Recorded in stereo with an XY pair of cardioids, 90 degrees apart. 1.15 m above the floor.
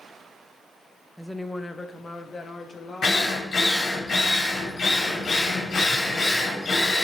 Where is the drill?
55° left, 3 m.